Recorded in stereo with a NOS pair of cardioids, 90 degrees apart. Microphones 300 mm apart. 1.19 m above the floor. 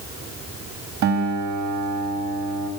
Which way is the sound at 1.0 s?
70° right.